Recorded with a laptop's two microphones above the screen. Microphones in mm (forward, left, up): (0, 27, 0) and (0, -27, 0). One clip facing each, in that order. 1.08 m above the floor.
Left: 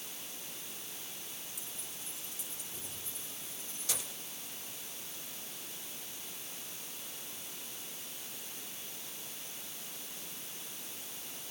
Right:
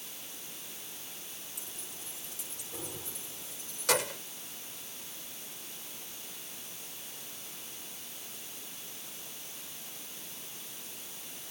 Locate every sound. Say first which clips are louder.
1.6 s keys jangling: right 1 dB; 70° right (ahead or behind); by 4.2 s 75° right (ahead or behind)